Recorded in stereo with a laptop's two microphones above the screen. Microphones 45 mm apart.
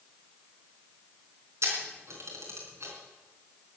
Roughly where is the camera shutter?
Right.